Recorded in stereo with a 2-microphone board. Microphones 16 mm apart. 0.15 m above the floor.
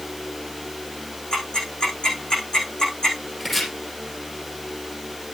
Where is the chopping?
20° left (ahead or behind), 5.5 m.